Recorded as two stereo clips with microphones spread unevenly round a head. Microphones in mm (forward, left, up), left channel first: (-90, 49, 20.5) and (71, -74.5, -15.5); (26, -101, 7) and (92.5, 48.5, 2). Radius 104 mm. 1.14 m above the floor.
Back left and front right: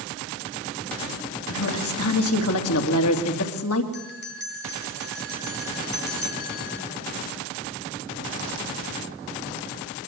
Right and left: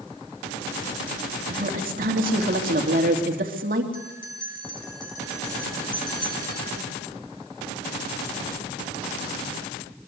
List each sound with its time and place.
1.5 s a woman speaking: 115° left, 3 m
3.9 s a bell: straight behind, 4 m